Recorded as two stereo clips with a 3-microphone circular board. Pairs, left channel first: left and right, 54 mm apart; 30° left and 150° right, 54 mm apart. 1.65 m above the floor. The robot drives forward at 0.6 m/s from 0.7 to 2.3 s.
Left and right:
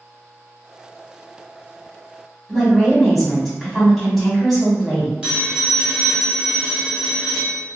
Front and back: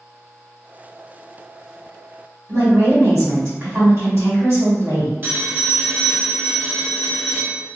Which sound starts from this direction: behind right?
A phone ringing, at 5.2 s.